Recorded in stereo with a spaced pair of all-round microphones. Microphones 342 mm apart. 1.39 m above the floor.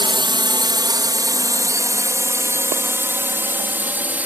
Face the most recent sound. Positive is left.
turn(degrees=-5)  # may be behind; listen again after turning